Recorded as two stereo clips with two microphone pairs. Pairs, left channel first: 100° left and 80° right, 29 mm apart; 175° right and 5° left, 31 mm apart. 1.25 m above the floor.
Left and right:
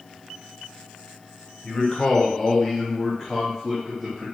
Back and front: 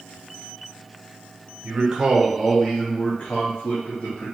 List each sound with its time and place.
1.6 s a man speaking: 40° left, 0.9 m; by 4.3 s 175° right, 1.3 m